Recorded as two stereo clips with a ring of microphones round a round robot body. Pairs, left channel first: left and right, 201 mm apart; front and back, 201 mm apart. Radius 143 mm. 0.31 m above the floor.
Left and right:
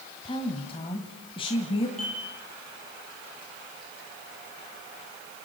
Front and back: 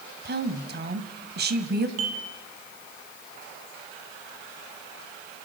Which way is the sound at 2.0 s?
Straight behind.